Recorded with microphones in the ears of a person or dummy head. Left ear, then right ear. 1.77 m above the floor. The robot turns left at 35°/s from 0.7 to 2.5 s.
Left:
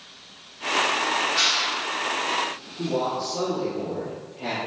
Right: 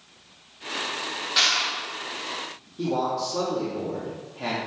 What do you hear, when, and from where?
1.4 s crushing: 35° right (ahead or behind), 3.5 m; by 1.8 s 50° right (ahead or behind), 3.5 m
2.8 s a man speaking: 75° right (ahead or behind), 3 m